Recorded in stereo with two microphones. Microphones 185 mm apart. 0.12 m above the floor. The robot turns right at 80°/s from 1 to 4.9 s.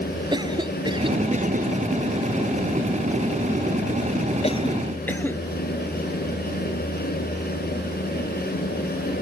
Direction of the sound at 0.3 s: 25° right (ahead or behind).